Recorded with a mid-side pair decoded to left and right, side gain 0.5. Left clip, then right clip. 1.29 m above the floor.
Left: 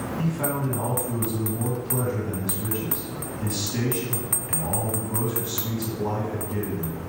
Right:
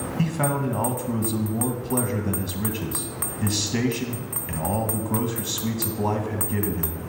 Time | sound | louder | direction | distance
0.2 | a man speaking | right 4 dB | 65° right | 1.5 m